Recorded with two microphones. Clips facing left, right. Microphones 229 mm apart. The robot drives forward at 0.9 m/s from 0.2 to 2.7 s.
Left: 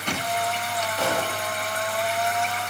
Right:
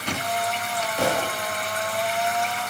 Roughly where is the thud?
Right.